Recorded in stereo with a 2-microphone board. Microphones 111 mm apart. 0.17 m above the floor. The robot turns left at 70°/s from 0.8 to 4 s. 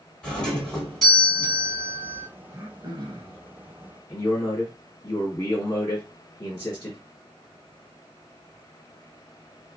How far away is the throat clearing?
About 1.0 m.